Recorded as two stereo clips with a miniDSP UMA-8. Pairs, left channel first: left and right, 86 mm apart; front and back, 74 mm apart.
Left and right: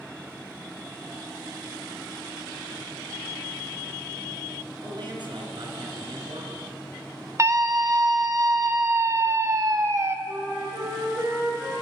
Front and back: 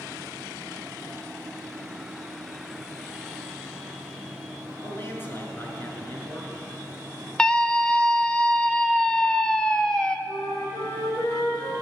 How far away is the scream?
About 1.0 m.